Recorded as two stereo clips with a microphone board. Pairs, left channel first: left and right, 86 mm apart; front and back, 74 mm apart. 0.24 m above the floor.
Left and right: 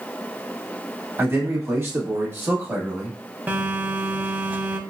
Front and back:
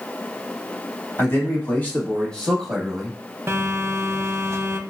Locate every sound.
1.2 s a man speaking: 40° right, 1.7 m; by 3.2 s 115° right, 1.2 m
3.5 s a phone buzzing: 150° right, 0.6 m